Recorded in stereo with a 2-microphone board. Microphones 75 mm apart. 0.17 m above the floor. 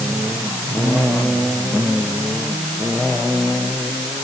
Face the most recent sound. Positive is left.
No sound to turn to.